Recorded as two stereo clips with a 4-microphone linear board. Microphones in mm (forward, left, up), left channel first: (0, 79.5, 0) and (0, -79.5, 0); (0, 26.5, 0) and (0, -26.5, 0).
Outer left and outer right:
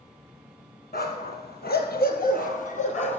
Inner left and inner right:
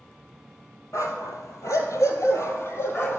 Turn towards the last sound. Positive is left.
turn(degrees=45)  # may be behind; listen again after turning